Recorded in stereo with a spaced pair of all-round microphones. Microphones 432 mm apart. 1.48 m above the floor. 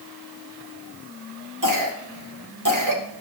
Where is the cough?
45° right (ahead or behind), 1.3 m.